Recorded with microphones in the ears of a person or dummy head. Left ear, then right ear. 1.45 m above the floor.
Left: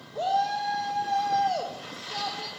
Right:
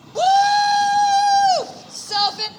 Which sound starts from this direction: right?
A shout, at 0.1 s.